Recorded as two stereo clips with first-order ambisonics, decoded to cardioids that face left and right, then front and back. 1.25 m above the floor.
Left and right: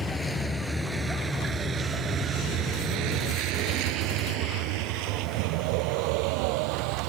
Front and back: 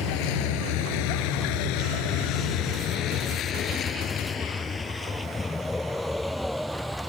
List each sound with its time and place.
0.0 s a vehicle: 10° left; by 7.1 s 95° right